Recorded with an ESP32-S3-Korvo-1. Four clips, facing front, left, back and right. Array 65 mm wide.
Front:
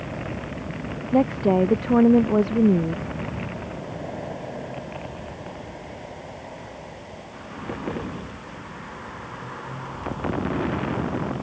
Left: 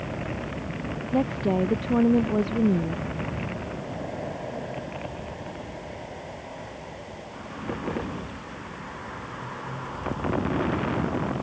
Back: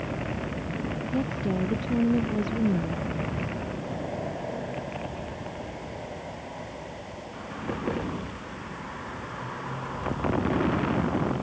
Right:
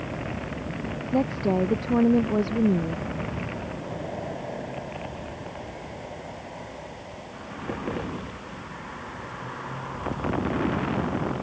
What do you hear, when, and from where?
1.1 s a woman speaking: 5° right